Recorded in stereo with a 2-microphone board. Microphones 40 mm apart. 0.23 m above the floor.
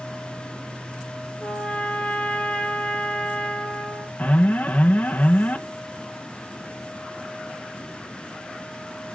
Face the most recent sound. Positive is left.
turn(degrees=40)  # may be behind; listen again after turning